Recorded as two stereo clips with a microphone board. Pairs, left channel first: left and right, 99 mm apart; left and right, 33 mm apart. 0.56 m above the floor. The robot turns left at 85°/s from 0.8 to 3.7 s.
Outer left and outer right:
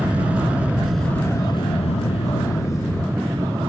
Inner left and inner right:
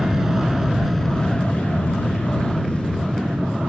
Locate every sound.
0.0 s an aircraft: 165° right; by 3.7 s 55° right